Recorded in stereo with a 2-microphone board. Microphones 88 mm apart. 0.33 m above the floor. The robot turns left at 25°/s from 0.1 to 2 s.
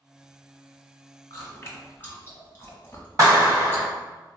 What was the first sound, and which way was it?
Chewing, 40° left (ahead or behind).